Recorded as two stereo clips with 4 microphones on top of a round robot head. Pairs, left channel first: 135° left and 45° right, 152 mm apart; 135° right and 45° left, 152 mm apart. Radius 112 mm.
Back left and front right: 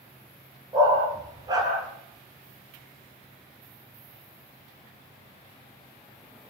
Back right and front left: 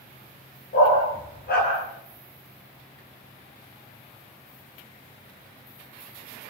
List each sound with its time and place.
0.7 s a dog barking: 115° right, 8 m